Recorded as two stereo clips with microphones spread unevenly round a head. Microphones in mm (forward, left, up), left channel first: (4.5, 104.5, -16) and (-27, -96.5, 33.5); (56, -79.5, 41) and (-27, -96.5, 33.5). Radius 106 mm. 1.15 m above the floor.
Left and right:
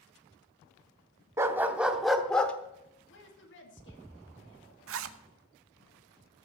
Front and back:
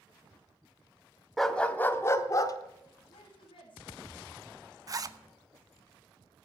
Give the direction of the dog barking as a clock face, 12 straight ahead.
2 o'clock.